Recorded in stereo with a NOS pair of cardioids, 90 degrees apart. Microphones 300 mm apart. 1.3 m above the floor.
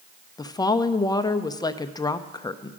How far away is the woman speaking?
About 0.5 m.